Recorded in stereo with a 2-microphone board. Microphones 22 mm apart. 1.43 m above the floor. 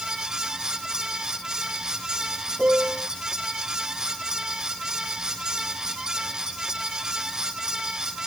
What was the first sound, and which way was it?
A piano, 70° right (ahead or behind).